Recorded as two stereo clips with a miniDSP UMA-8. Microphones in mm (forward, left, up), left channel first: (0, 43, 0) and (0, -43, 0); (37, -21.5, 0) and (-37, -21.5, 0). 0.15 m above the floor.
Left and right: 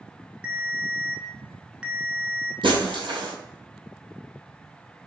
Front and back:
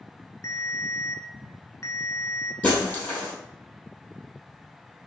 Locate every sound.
0.4 s a ringtone: 20° right, 0.8 m
2.6 s breaking glass: 70° right, 2 m